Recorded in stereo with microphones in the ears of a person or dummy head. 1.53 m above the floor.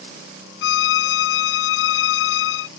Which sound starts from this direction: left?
A violin, at 0.6 s.